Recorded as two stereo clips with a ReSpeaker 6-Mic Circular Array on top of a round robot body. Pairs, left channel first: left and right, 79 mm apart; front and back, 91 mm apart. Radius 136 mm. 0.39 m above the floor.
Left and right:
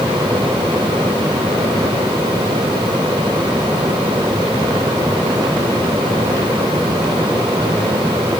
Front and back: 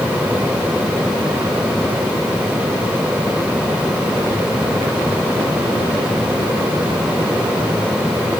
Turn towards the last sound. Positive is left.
No sound to turn to.